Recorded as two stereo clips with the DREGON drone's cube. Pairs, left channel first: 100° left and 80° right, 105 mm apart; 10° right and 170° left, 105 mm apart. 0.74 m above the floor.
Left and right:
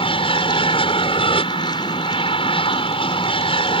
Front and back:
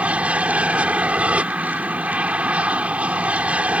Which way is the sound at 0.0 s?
95° left.